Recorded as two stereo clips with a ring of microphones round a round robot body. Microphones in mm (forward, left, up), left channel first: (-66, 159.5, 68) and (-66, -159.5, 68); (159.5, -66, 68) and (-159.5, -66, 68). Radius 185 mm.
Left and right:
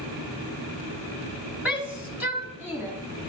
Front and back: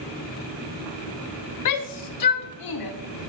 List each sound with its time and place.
1.6 s a shout: 5° right, 1.4 m